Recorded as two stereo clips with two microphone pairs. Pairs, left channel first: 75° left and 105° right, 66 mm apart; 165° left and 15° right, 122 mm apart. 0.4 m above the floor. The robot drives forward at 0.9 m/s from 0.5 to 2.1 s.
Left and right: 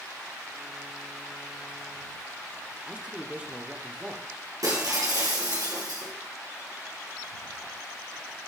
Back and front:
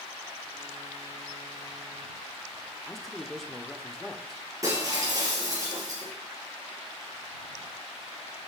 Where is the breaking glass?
80° right, 3 m.